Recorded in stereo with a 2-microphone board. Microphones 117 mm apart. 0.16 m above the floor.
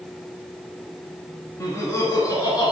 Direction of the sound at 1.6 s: 25° left (ahead or behind).